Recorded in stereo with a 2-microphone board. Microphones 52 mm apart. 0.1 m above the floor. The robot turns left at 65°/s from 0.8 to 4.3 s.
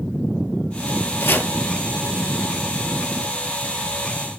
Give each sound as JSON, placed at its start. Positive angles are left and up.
{"t": 1.2, "sound": "chopping", "side_deg": 55, "distance_m": 1.3}